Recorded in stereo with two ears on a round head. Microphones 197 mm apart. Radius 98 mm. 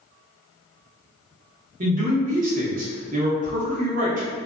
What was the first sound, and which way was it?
A man speaking, 35° right (ahead or behind).